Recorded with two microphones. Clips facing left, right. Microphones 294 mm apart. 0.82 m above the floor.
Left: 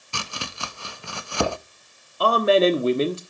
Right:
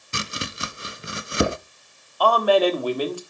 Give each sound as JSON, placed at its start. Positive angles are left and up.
{"t": 0.1, "sound": "chopping", "side_deg": -20, "distance_m": 0.5}
{"t": 2.2, "sound": "a man speaking", "side_deg": 25, "distance_m": 1.3}